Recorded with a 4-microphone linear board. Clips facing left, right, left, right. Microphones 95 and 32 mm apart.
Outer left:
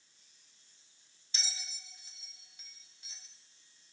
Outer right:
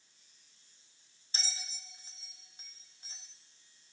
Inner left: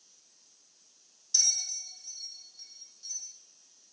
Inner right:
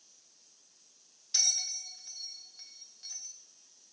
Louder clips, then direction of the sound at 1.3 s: Outer right 1 dB, inner left 1 dB; 40° right (ahead or behind).